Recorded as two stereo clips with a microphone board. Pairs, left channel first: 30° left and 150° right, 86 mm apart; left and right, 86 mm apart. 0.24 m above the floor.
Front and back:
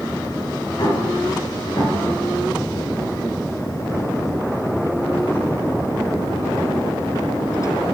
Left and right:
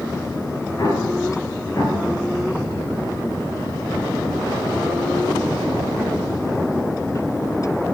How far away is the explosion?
About 2.5 m.